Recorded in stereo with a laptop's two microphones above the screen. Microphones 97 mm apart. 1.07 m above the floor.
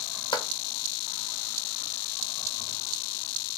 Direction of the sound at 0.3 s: 55° left (ahead or behind).